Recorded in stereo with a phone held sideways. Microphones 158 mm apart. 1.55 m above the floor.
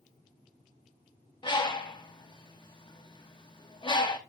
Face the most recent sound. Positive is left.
turn(degrees=30)  # may be behind; listen again after turning